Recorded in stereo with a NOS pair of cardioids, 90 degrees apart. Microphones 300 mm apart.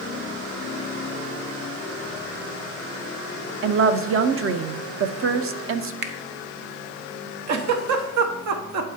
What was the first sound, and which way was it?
A woman speaking, 45° right.